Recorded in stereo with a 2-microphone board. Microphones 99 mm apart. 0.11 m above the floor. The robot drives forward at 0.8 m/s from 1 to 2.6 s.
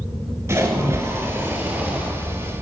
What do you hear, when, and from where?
0.5 s a splash: 30° right (ahead or behind), 0.7 m; by 2.1 s 15° right (ahead or behind), 1.4 m